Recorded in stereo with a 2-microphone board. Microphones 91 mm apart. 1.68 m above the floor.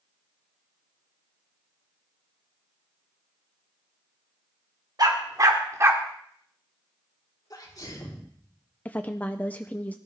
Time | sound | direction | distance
5.0 | a dog barking | 50° right (ahead or behind) | 1.9 m
7.5 | a sneeze | 45° left (ahead or behind) | 4 m
8.8 | a woman speaking | 20° left (ahead or behind) | 0.6 m